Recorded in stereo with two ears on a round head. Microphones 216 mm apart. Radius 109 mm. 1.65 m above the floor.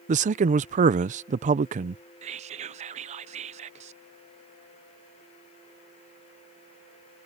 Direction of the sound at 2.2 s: 30° right (ahead or behind).